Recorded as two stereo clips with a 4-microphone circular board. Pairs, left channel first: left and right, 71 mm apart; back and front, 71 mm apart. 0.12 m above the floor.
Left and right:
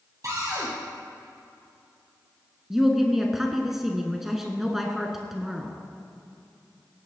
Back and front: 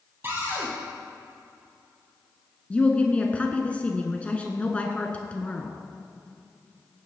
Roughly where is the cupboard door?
Ahead right.